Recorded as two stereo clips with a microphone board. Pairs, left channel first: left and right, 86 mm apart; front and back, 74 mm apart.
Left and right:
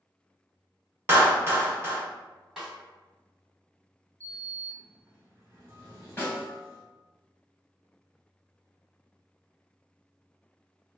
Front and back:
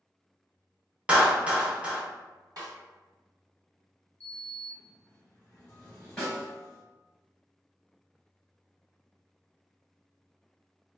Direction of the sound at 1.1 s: 120° right.